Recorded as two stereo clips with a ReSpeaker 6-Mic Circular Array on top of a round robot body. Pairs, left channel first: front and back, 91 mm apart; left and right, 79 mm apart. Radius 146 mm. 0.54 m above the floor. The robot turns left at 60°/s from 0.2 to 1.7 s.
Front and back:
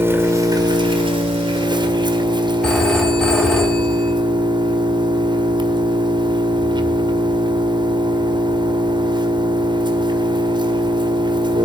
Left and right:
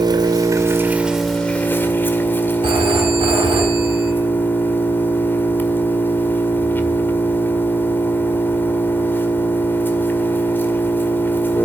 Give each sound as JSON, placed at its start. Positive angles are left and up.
{"t": 0.0, "sound": "an engine running", "azimuth_deg": -115, "distance_m": 1.8}
{"t": 2.6, "sound": "a phone ringing", "azimuth_deg": -80, "distance_m": 3.0}